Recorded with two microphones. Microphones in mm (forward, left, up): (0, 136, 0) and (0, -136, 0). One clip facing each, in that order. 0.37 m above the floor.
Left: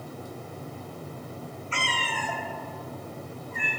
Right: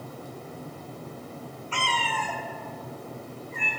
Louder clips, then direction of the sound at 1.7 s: Right 3 dB; 20° left (ahead or behind).